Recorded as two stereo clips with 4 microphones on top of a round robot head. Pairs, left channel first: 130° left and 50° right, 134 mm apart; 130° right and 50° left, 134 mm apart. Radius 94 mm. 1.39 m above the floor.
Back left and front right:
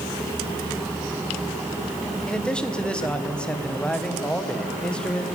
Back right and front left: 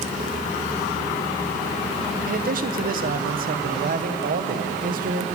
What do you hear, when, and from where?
2.3 s a man speaking: 50° left, 1.4 m